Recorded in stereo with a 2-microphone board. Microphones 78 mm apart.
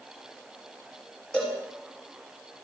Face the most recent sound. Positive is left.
turn(degrees=10)  # may be behind; listen again after turning